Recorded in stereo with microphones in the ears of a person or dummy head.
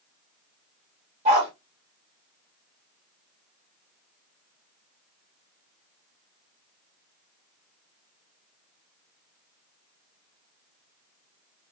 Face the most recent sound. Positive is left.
turn(degrees=-35)  # may be behind; listen again after turning